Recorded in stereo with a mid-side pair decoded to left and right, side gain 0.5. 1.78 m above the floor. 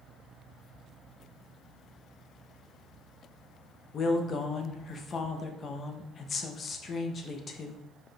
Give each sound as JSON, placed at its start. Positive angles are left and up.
{"t": 3.9, "sound": "a woman speaking", "azimuth_deg": 45, "distance_m": 0.6}